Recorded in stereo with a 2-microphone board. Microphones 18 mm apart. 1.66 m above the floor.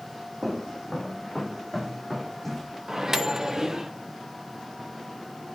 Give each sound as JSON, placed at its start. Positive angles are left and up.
{"t": 0.4, "sound": "footsteps", "side_deg": 0, "distance_m": 4.5}
{"t": 2.9, "sound": "a microwave", "side_deg": -25, "distance_m": 0.8}